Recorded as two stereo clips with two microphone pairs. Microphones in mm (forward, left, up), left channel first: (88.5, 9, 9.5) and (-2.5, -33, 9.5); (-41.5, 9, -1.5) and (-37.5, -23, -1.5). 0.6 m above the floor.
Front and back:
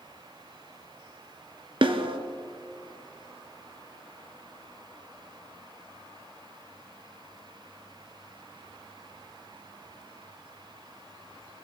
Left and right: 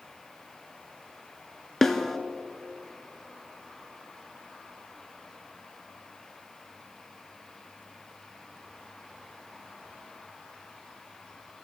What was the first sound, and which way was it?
A snare drum, straight behind.